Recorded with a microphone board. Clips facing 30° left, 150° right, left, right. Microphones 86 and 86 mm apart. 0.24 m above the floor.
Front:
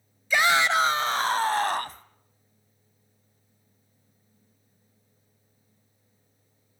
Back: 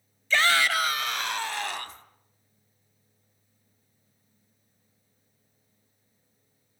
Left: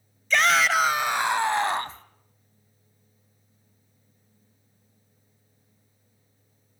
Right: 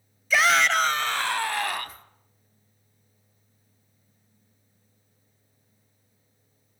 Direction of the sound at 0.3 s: 20° right.